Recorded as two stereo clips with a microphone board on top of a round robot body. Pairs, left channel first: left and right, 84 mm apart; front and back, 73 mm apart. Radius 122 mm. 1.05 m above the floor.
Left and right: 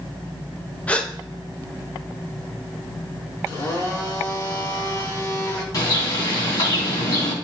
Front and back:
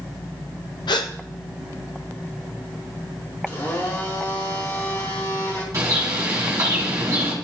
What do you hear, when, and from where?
0.9 s a gasp: 15° left, 0.7 m
3.5 s a blender: 45° left, 2.5 m
5.7 s a bird: 130° left, 2 m